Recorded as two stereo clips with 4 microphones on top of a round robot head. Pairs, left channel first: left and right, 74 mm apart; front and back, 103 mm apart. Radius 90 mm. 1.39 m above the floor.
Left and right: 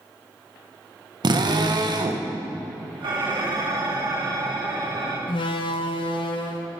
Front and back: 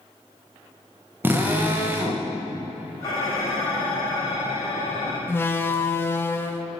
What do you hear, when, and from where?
1.2 s a drill: 110° right, 1.7 m
3.0 s dishes clattering: 65° right, 5 m
5.3 s a door slam: 70° left, 1.2 m